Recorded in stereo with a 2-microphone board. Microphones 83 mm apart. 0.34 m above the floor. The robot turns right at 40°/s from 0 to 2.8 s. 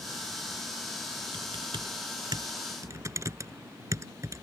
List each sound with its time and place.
1.3 s typing on a keyboard: 80° right; by 4.4 s 40° right (ahead or behind)